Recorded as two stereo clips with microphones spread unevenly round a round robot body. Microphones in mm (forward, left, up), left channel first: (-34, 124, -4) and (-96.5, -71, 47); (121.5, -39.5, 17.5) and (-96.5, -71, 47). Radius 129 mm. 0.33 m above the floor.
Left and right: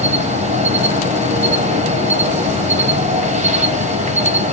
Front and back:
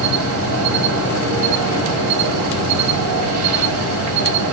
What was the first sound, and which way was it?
An insect, 170° right.